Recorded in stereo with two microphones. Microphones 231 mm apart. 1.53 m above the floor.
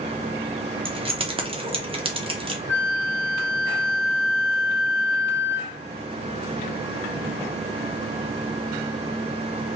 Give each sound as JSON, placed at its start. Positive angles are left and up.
{"t": 0.8, "sound": "keys jangling", "side_deg": -25, "distance_m": 0.7}
{"t": 2.7, "sound": "a flute", "side_deg": 10, "distance_m": 1.7}